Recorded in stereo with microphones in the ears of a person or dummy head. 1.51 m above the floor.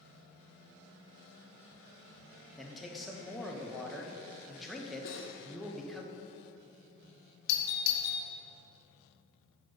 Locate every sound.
2.6 s a man speaking: 5° left (ahead or behind), 0.8 m
5.0 s cutlery clinking: 55° left (ahead or behind), 1.6 m
7.5 s a doorbell: 60° left (ahead or behind), 1.1 m